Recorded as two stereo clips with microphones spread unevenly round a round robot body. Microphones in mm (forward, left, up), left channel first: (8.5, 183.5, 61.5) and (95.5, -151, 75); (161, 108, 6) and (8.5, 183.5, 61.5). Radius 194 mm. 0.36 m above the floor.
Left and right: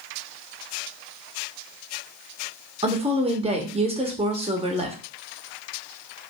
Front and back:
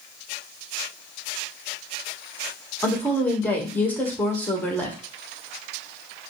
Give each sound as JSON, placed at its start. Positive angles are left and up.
{"t": 2.8, "sound": "a woman speaking", "azimuth_deg": -15, "distance_m": 1.1}